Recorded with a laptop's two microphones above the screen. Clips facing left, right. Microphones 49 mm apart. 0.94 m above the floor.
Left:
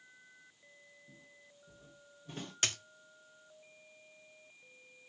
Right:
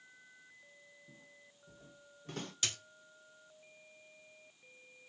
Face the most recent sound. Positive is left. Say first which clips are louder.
# left 4 dB
turn(degrees=50)  # may be behind; listen again after turning